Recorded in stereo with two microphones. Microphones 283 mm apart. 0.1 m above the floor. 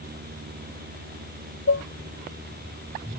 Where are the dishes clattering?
55° left (ahead or behind).